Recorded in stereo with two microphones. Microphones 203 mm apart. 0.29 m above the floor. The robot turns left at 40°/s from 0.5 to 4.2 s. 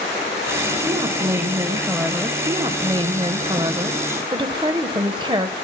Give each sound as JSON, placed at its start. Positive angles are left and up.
{"t": 0.8, "sound": "a woman speaking", "side_deg": -20, "distance_m": 1.3}
{"t": 2.5, "sound": "a woman speaking", "side_deg": -15, "distance_m": 0.9}